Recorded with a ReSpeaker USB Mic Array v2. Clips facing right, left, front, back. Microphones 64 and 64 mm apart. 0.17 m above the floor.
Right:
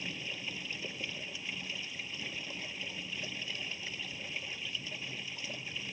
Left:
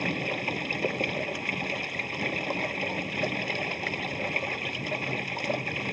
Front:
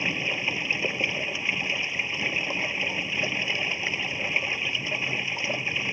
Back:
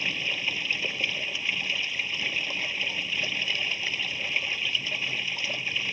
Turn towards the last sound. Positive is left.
turn(degrees=65)